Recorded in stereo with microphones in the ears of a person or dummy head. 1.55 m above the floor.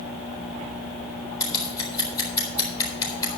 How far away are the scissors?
About 4 m.